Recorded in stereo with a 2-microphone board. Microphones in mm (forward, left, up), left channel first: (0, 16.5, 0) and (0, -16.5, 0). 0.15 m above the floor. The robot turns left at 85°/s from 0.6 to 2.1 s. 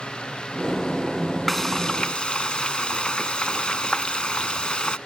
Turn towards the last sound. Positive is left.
turn(degrees=110)